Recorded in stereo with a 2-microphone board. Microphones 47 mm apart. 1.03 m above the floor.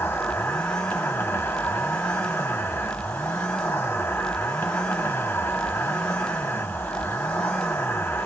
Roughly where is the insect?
Left.